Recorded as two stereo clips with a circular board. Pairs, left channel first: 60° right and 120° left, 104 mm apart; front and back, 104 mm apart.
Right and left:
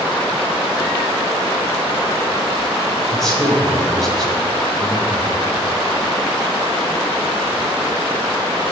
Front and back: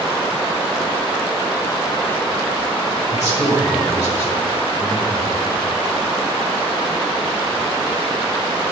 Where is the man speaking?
25° left, 1.1 m.